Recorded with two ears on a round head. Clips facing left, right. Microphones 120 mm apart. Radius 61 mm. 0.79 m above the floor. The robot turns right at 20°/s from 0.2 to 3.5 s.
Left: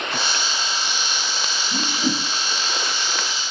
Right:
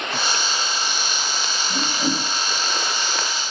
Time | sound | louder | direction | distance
1.7 | a whoosh | even | 65° right (ahead or behind) | 1.3 m